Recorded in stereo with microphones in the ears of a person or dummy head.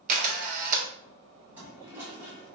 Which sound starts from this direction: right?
A camera shutter, at 0.1 s.